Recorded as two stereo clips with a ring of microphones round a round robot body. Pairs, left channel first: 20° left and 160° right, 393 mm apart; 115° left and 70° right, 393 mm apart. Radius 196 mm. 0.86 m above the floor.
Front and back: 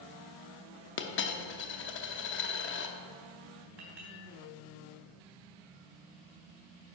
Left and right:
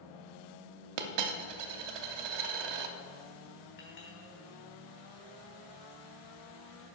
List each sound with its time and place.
1.0 s a dropped coin: 40° right, 0.7 m
3.8 s a clink: straight behind, 3.5 m